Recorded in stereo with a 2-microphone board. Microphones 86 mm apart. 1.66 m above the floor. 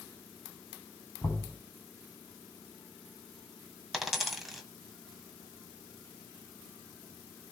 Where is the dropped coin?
5° right (ahead or behind), 1.8 m.